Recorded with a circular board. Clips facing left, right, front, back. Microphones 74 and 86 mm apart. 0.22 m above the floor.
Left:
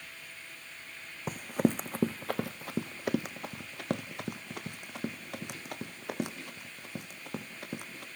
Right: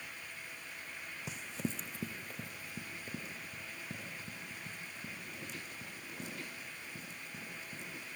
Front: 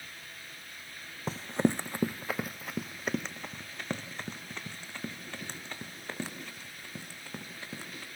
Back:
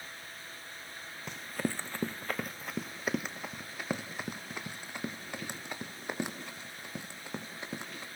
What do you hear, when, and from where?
1.3 s running footsteps: 50° left, 0.6 m; by 8.1 s 110° left, 4 m